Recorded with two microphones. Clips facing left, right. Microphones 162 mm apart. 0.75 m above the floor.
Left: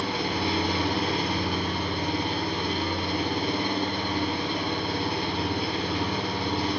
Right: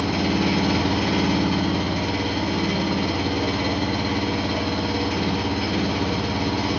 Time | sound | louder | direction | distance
0.0 | an engine running | right 7 dB | 80° right | 1.4 m